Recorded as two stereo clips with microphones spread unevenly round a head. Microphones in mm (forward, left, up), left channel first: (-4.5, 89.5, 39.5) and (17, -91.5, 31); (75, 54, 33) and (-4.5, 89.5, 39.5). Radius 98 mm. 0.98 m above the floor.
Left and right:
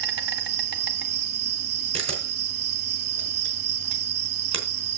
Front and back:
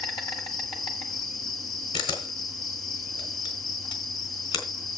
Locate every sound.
0.0 s an insect: 85° right, 1.1 m
1.9 s a camera shutter: 25° right, 4 m